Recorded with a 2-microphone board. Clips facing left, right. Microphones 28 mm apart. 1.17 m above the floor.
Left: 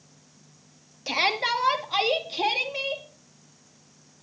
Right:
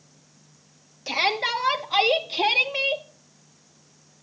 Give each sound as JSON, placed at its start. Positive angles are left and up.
{"t": 1.1, "sound": "a shout", "side_deg": 5, "distance_m": 2.0}